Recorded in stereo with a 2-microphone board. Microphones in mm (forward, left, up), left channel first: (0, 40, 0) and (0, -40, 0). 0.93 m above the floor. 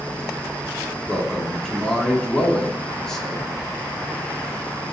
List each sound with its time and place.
1.1 s a man speaking: 10° left (ahead or behind), 2.5 m